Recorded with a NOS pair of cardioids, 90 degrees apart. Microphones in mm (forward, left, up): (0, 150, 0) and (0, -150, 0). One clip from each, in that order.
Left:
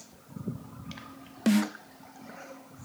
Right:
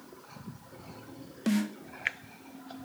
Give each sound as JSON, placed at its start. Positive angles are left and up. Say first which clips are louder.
{"t": 1.5, "sound": "a snare drum", "louder": "left 4 dB", "azimuth_deg": 30, "distance_m": 1.2}